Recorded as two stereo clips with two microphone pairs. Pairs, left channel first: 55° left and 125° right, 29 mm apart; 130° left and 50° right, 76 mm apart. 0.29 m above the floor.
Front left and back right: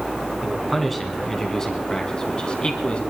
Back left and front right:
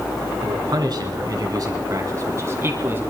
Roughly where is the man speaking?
Ahead right.